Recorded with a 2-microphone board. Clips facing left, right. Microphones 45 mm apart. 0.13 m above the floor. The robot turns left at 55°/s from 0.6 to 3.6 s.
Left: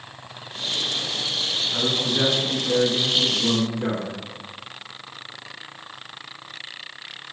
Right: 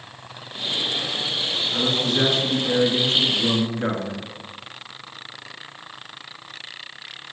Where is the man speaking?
10° left, 1.5 m; by 4.3 s 95° right, 1.5 m.